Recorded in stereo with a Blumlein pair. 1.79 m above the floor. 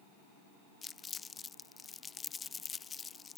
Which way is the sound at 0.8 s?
15° left.